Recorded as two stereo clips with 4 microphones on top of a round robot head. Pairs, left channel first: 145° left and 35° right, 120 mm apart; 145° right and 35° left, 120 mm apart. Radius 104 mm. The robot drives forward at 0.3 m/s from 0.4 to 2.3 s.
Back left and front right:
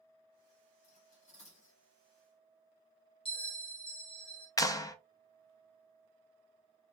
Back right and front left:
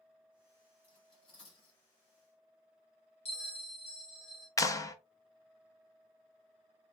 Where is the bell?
175° right, 2 m.